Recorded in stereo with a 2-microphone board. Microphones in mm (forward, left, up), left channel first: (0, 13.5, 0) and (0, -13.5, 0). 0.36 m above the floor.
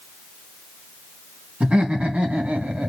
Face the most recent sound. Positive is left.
turn(degrees=-65)  # may be behind; listen again after turning